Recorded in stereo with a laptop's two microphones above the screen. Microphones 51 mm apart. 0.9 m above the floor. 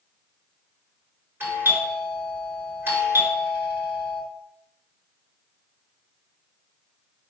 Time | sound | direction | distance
1.4 | a doorbell | 40° right (ahead or behind) | 3 m